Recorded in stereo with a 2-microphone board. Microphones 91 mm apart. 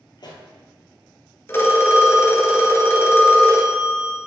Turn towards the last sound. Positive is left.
turn(degrees=30)  # may be behind; listen again after turning